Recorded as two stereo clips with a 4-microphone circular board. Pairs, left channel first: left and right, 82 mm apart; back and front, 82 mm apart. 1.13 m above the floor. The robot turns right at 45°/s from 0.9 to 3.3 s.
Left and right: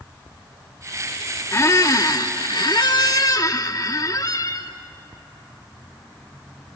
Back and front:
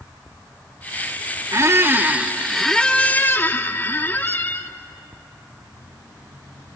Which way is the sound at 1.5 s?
40° left.